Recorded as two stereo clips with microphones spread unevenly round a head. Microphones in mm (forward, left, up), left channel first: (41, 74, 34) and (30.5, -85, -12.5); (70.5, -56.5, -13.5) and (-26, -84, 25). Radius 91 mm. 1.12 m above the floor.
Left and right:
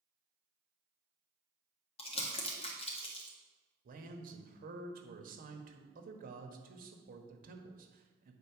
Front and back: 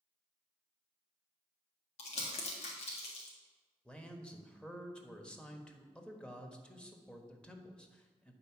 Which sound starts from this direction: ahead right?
A man speaking, at 3.9 s.